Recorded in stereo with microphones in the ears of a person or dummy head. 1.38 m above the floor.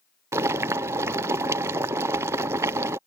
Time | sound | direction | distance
0.3 | boiling | 10° right (ahead or behind) | ?